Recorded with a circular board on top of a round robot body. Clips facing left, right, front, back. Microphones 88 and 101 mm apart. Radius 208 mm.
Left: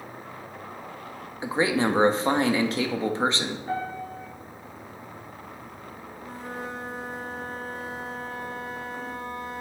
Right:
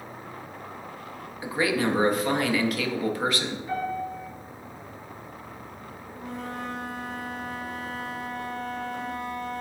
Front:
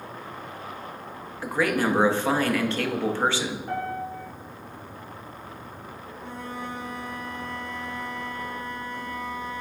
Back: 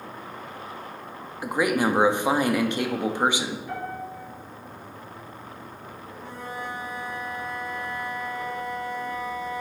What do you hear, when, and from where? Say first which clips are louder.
1.4 s a man speaking: left 2 dB, back 1 dB; 120° left, 0.8 m
3.7 s a piano: right 1 dB, front 3 dB; 45° left, 2.5 m
6.2 s a flute: right 2 dB, even; 95° right, 1.2 m